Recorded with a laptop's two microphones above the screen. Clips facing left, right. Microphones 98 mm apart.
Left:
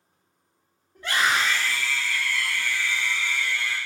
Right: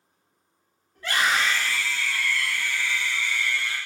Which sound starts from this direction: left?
A scream, at 0.9 s.